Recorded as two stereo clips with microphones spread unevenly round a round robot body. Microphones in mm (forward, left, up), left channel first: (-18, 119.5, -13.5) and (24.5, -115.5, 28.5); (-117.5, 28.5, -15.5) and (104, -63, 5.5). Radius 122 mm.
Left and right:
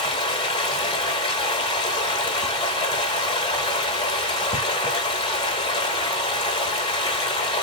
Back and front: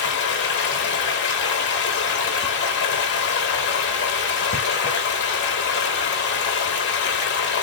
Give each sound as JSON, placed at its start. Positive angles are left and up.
{"t": 0.0, "sound": "running water", "azimuth_deg": 155, "distance_m": 0.9}